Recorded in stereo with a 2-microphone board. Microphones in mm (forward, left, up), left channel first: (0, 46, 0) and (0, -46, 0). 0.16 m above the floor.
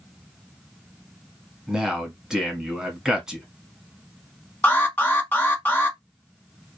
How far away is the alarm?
About 1.3 m.